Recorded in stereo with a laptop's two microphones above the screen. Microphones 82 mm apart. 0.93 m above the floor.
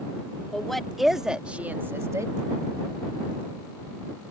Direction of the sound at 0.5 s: 5° left (ahead or behind).